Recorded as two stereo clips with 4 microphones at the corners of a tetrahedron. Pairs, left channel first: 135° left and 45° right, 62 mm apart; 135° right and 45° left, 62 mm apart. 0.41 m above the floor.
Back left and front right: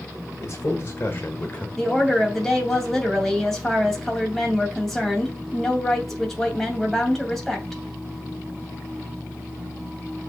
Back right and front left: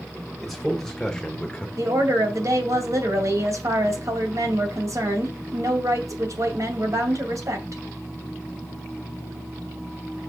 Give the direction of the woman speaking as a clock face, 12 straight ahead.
10 o'clock.